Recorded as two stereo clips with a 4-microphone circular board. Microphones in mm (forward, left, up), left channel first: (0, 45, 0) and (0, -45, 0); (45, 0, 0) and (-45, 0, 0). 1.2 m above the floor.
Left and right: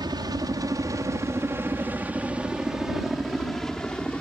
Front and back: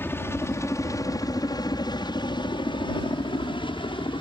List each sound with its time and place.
0.0 s a helicopter: 60° right; by 4.2 s 15° left